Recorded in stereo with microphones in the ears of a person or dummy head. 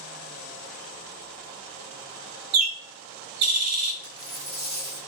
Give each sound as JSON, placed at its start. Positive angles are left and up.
{"t": 2.5, "sound": "a bird", "side_deg": -85, "distance_m": 0.7}
{"t": 4.0, "sound": "a dropped coin", "side_deg": -20, "distance_m": 1.2}